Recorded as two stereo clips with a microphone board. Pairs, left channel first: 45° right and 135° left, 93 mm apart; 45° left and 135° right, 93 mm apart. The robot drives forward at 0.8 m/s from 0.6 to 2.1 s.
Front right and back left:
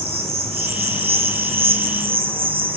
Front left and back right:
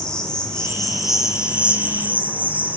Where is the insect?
125° left, 1.4 m; by 2.8 s 150° left, 2.5 m.